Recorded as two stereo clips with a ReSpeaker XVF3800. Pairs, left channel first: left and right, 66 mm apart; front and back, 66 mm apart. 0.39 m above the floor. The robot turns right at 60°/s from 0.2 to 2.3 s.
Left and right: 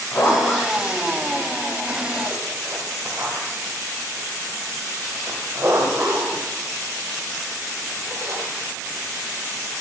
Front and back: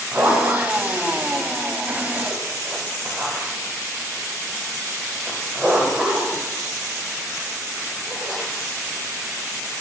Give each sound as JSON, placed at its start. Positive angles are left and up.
{"t": 0.1, "sound": "a zipper", "azimuth_deg": 125, "distance_m": 1.2}